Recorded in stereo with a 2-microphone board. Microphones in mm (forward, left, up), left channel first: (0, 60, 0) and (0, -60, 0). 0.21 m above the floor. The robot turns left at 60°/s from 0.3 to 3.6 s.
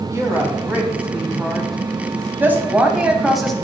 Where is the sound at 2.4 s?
15° right (ahead or behind), 1.0 m; by 3.5 s centre (ahead or behind), 1.0 m.